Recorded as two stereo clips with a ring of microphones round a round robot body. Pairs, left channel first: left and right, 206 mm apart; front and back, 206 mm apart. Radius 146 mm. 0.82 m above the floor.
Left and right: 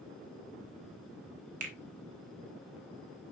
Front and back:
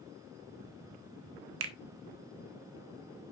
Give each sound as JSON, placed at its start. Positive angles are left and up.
{"t": 1.6, "sound": "a finger snap", "azimuth_deg": -150, "distance_m": 0.6}